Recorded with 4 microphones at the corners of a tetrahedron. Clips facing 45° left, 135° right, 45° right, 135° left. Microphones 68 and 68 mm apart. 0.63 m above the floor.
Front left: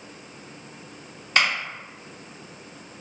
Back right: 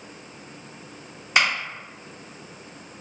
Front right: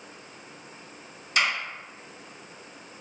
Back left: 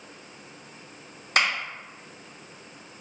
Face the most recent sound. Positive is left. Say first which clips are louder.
# back right 1 dB, back left 2 dB
turn(degrees=150)